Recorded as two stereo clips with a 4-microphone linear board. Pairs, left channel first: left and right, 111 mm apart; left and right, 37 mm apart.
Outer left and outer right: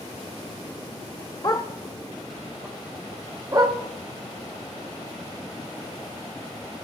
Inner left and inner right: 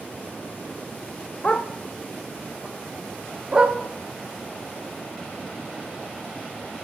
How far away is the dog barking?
About 0.9 m.